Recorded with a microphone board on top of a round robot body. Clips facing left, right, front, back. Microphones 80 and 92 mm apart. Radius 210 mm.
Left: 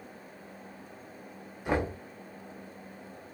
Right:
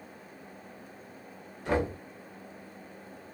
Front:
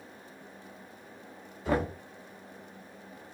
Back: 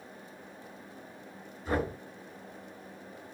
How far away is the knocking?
About 0.7 m.